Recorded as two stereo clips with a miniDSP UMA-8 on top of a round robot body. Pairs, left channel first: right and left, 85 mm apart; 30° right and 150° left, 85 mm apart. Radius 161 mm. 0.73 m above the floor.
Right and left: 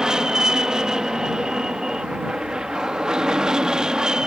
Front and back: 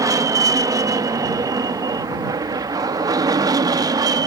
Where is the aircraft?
170° left.